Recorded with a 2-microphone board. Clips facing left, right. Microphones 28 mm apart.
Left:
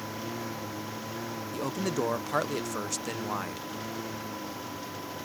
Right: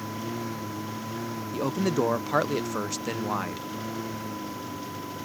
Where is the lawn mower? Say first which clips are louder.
Right 3 dB; centre (ahead or behind).